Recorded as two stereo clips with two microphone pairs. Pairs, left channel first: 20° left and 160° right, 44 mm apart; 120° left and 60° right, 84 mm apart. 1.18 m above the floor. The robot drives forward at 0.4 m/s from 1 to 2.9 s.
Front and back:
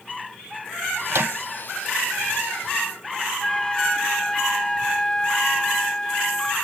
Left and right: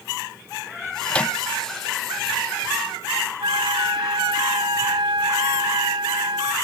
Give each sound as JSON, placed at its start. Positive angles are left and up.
{"t": 1.1, "sound": "a microwave", "azimuth_deg": -165}
{"t": 3.4, "sound": "a flute", "azimuth_deg": -55}